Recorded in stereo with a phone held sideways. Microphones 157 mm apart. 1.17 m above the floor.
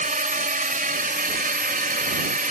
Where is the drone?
55° right (ahead or behind); by 2.5 s 60° right (ahead or behind).